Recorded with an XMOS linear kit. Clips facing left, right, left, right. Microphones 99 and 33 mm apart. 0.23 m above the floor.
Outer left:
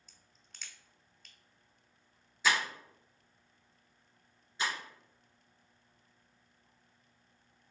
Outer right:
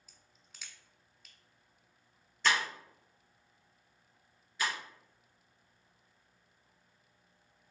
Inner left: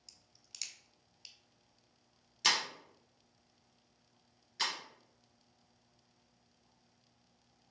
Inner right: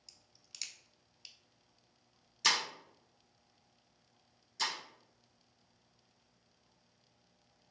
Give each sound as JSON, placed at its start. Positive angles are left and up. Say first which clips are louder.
{"t": 0.1, "sound": "a crack", "louder": "outer right 1 dB, even", "side_deg": -5, "distance_m": 0.6}
{"t": 2.4, "sound": "breaking glass", "louder": "even, even", "side_deg": 10, "distance_m": 1.3}
{"t": 4.6, "sound": "breaking glass", "louder": "even, even", "side_deg": 25, "distance_m": 1.7}